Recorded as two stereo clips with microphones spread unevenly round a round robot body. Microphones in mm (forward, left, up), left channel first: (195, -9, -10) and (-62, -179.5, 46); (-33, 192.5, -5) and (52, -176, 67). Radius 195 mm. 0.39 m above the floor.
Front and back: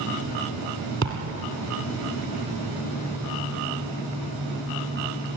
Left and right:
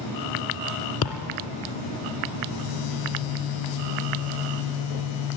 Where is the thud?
155° left, 1.8 m.